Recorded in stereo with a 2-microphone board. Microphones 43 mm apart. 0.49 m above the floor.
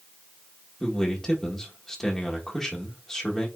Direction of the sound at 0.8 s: 15° left (ahead or behind).